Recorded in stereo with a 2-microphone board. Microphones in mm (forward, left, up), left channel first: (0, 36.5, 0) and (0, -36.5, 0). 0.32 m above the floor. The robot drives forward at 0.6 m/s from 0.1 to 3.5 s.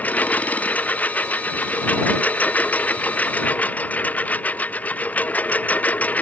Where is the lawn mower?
20° left (ahead or behind).